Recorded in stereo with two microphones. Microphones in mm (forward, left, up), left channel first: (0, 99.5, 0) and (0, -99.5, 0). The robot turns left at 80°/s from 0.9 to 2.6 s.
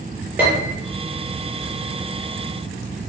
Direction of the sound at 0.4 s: 10° right (ahead or behind).